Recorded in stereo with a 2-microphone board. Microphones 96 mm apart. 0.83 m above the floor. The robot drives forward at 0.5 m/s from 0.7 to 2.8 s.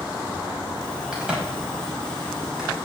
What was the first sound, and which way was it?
A crack, 10° right (ahead or behind).